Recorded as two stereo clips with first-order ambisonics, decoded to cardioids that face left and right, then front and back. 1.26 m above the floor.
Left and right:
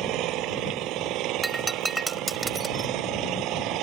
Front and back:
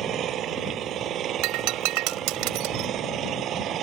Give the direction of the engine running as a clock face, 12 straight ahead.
4 o'clock.